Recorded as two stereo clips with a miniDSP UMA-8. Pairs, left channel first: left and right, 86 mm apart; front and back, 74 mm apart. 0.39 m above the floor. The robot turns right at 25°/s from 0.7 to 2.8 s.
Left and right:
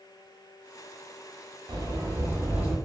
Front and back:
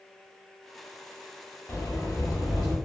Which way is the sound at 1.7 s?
45° right.